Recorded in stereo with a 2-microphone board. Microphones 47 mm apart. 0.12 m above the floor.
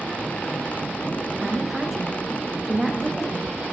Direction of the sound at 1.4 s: 5° right (ahead or behind).